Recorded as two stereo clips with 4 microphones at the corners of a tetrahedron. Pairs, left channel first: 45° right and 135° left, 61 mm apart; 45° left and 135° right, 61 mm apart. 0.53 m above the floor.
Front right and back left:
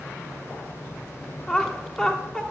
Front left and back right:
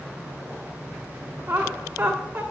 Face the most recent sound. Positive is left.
turn(degrees=-115)